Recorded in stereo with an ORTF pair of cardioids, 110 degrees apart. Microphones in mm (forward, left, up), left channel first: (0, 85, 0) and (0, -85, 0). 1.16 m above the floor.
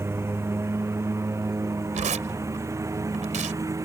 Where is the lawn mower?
15° right; by 3.9 s 20° right.